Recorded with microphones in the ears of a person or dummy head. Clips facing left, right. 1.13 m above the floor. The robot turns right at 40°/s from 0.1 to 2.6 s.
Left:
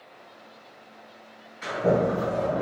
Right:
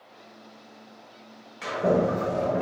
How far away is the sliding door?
About 1.1 m.